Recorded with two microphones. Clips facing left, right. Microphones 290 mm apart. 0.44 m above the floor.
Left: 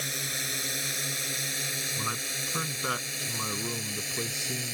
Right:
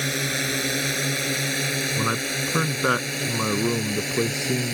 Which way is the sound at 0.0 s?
75° right (ahead or behind).